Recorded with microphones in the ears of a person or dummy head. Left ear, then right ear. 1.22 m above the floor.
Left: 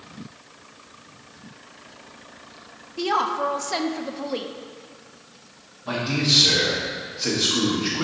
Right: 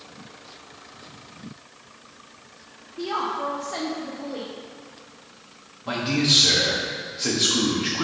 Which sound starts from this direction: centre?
A man speaking, at 5.8 s.